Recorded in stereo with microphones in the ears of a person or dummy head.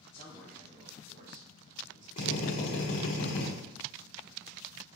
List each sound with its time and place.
0.1 s a man speaking: 25° left (ahead or behind), 0.8 m; by 2.1 s 70° right (ahead or behind), 1.5 m
2.2 s a drill: 40° left (ahead or behind), 1.3 m